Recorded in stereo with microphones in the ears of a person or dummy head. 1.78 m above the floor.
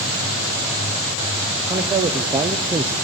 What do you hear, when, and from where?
1.7 s a man speaking: 25° right (ahead or behind), 1.4 m; by 2.9 s 15° right (ahead or behind), 0.8 m